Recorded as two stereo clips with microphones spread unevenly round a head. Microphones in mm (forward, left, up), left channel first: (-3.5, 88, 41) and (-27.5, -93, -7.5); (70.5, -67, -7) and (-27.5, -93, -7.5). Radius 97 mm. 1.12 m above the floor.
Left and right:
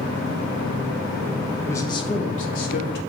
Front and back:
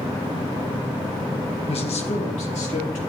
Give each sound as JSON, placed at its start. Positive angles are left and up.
{"t": 1.7, "sound": "a man speaking", "azimuth_deg": 0, "distance_m": 1.4}